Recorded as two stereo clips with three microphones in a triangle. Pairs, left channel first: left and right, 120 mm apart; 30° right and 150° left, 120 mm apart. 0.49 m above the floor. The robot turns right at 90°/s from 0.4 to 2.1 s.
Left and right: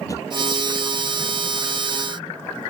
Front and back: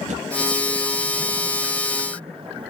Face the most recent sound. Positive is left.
turn(degrees=-55)